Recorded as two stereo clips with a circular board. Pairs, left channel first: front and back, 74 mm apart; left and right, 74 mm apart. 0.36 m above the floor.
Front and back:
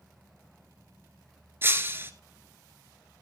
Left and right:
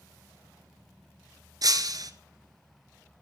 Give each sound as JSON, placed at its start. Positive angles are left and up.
{"t": 1.6, "sound": "breaking glass", "azimuth_deg": -120, "distance_m": 1.5}